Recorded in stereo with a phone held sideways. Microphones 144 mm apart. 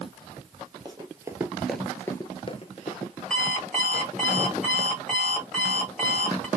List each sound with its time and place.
0.8 s running footsteps: 30° right (ahead or behind), 1.3 m; by 3.1 s 55° left (ahead or behind), 1.3 m
3.3 s an alarm clock: 5° left (ahead or behind), 1.9 m